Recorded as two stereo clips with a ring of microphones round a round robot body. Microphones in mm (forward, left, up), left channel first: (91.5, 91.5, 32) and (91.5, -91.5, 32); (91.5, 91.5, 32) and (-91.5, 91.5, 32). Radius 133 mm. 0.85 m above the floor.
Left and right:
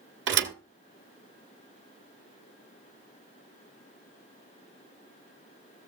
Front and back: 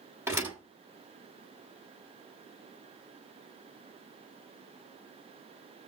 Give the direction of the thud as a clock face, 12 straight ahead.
3 o'clock.